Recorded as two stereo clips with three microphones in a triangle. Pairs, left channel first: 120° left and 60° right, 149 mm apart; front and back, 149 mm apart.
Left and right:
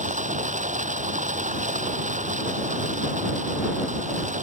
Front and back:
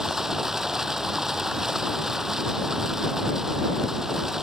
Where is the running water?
95° right.